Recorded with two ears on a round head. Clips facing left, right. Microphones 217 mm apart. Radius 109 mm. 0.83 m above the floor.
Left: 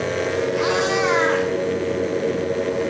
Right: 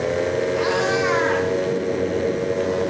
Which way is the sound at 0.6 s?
30° left (ahead or behind).